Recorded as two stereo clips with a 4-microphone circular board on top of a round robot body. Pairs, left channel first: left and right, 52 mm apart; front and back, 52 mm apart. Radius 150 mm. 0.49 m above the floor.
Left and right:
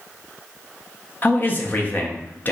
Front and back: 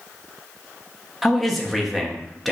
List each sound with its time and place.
1.2 s a man speaking: 85° left, 0.7 m